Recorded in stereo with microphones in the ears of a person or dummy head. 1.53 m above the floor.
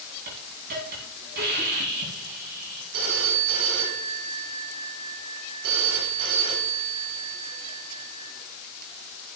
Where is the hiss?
50° right (ahead or behind), 3 m.